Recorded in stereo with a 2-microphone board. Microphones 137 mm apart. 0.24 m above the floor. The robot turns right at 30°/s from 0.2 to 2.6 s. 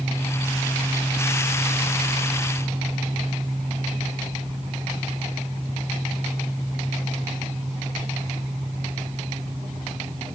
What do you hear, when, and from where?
Only background noise.